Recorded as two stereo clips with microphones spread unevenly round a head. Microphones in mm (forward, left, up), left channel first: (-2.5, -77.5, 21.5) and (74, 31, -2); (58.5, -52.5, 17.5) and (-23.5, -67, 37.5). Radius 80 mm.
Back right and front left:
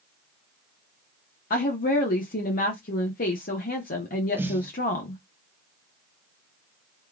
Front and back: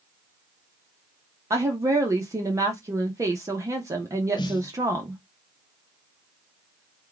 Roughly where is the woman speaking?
Behind right.